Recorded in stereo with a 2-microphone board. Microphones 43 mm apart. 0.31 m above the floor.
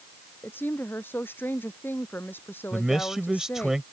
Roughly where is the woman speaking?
Left.